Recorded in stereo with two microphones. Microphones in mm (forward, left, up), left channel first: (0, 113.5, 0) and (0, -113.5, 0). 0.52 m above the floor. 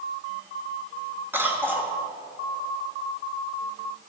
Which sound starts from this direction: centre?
A cough, at 1.3 s.